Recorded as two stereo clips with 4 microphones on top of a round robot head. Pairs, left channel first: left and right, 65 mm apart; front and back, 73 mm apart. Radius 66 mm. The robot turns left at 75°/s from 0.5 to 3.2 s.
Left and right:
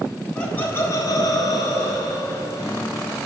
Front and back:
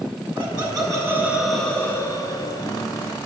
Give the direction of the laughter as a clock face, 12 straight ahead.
7 o'clock.